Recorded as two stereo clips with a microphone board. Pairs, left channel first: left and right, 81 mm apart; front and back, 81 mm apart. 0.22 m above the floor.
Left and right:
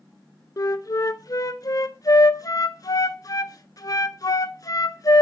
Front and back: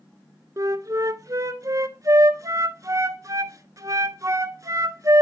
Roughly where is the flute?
Behind left.